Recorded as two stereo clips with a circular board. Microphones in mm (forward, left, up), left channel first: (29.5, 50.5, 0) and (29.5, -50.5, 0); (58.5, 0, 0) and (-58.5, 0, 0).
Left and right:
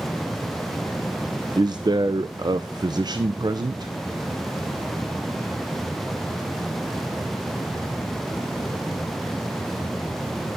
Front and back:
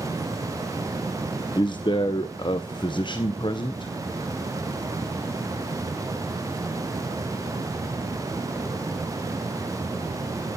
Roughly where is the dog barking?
I don't hear a dog barking.